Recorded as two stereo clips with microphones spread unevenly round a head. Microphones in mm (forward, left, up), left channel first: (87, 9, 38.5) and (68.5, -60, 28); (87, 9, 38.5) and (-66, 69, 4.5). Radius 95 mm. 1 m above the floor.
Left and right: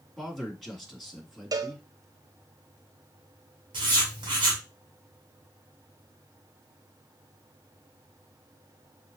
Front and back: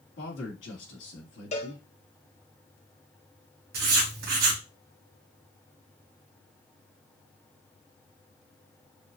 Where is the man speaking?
15° right, 2.5 m.